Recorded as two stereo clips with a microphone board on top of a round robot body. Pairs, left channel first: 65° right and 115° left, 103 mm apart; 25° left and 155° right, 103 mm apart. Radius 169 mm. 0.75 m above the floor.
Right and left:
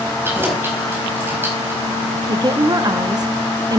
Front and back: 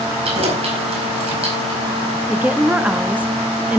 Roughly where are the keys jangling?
Behind.